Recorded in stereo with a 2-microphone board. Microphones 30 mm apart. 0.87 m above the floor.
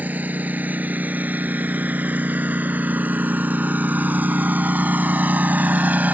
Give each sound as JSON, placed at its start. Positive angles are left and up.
{"t": 0.0, "sound": "a lawn mower", "side_deg": -70}